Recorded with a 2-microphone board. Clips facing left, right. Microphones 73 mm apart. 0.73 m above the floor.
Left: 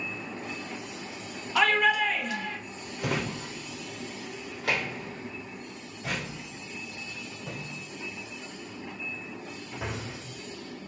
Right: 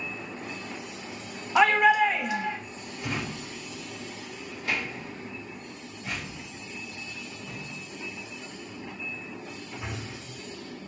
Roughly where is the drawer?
Left.